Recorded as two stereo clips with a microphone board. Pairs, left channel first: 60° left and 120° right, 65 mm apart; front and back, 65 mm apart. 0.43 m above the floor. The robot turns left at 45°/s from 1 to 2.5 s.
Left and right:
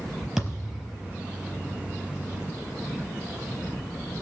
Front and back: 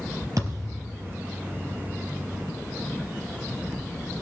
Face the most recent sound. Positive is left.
turn(degrees=85)